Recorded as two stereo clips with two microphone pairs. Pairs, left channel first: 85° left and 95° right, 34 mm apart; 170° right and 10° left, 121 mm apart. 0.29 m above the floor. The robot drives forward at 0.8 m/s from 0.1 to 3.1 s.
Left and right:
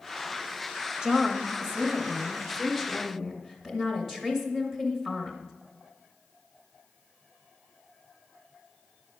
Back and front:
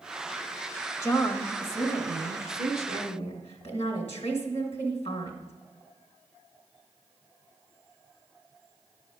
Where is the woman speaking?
140° right, 1.0 m; by 5.5 s 170° right, 2.5 m.